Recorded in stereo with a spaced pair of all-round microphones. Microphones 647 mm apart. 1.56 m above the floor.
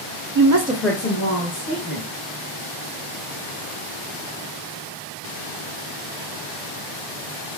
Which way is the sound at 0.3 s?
40° right (ahead or behind).